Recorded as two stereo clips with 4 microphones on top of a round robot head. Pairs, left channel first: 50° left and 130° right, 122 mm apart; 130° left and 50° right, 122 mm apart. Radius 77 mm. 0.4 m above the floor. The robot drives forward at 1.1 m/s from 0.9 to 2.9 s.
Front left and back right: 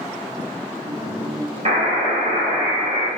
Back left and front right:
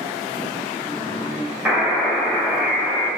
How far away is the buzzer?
About 2.5 m.